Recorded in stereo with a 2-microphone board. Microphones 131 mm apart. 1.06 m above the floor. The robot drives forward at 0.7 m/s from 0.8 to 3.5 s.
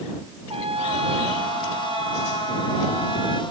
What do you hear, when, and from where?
0.5 s a trumpet: 50° right (ahead or behind); by 3.4 s 35° right (ahead or behind)